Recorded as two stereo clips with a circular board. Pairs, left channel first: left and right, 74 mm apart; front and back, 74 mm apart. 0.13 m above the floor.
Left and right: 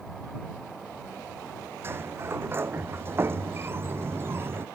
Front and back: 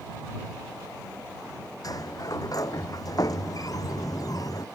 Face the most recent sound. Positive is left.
turn(degrees=-35)